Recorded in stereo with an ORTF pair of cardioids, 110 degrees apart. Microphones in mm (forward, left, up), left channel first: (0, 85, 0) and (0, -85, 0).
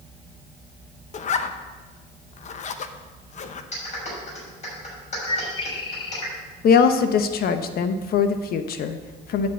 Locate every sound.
1.1 s a zipper: 45° left, 0.8 m
3.7 s a clap: 45° left, 6 m
5.3 s a bird: 30° left, 1.2 m
6.6 s a woman speaking: 60° left, 1.0 m